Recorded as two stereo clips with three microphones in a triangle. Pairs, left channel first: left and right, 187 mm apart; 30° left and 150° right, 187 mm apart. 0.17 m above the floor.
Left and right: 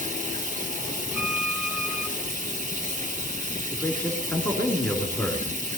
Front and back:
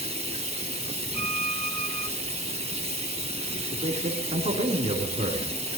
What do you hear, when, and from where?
0.0 s running water: 110° right, 1.6 m
1.1 s a violin: 175° right, 0.7 m
3.7 s a man speaking: 170° left, 3 m